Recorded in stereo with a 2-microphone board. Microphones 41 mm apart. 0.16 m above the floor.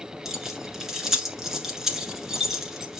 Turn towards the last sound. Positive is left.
turn(degrees=-10)  # may be behind; listen again after turning